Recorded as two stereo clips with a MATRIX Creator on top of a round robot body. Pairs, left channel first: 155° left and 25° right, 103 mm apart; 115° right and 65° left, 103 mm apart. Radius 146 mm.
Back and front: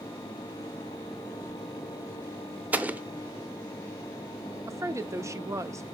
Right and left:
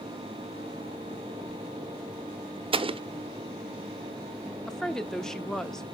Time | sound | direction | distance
2.7 | an explosion | 50° left | 0.8 m
4.7 | a woman speaking | 30° right | 1.0 m